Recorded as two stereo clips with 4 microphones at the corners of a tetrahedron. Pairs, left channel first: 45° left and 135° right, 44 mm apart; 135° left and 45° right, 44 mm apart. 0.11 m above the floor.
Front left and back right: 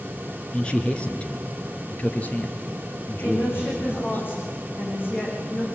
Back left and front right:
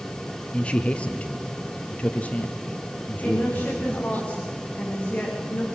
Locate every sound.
0.5 s a man speaking: 95° left, 1.6 m; by 4.2 s 85° left, 3 m
3.2 s a woman speaking: 75° left, 8.5 m